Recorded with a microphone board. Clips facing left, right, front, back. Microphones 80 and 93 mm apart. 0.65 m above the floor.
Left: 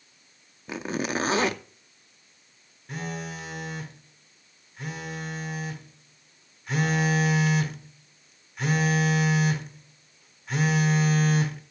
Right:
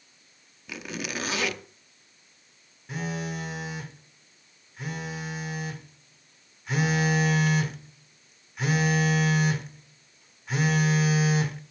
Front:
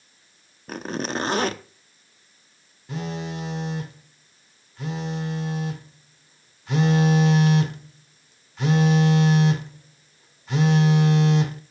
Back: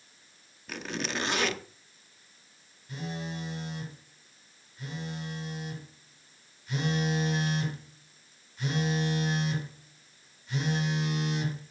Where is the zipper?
40° left, 0.7 m.